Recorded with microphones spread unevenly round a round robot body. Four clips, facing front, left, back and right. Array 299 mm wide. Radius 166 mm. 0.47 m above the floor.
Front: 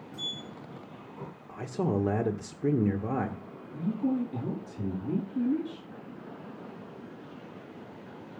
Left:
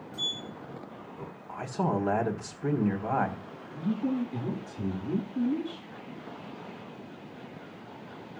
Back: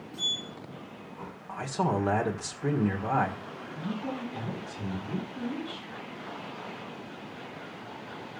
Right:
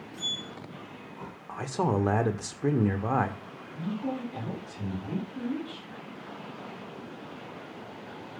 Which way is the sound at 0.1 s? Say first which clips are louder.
Left 1 dB, back 1 dB; 25° left.